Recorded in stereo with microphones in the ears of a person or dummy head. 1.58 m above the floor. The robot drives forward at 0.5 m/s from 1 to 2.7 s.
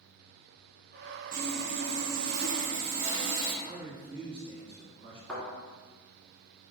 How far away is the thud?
About 2.0 m.